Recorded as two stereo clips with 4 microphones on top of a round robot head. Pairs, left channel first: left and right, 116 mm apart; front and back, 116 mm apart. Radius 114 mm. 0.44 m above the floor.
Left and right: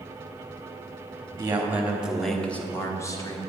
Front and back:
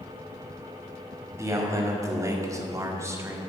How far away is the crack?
No crack in this recording.